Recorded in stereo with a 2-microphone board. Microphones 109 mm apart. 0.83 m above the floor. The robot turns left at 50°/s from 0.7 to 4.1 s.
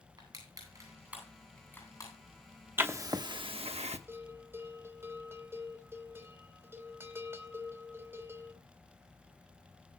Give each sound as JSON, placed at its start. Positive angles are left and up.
{"t": 0.2, "sound": "crushing", "side_deg": -35, "distance_m": 9.0}
{"t": 2.8, "sound": "writing", "side_deg": -20, "distance_m": 1.1}
{"t": 4.1, "sound": "a bell", "side_deg": -25, "distance_m": 3.5}